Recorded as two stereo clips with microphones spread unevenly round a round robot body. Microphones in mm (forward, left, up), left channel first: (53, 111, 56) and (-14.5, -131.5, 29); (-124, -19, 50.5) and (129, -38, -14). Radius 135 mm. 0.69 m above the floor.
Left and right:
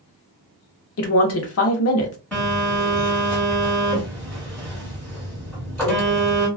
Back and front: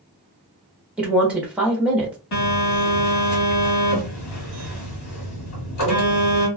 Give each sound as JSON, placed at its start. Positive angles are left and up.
{"t": 1.0, "sound": "a woman speaking", "azimuth_deg": 70, "distance_m": 0.7}
{"t": 2.3, "sound": "a phone buzzing", "azimuth_deg": 160, "distance_m": 1.4}